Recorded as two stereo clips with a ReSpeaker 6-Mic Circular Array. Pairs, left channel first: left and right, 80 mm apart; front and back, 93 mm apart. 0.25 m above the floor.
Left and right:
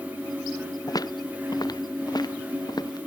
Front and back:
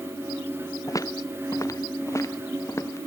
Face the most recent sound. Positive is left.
turn(degrees=55)